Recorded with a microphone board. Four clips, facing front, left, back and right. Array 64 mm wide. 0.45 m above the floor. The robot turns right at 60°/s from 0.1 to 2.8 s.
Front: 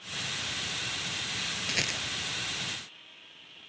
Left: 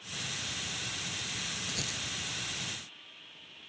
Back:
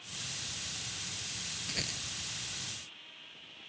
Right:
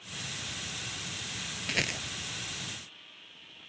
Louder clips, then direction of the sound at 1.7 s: Right 7 dB, front 8 dB; 70° right.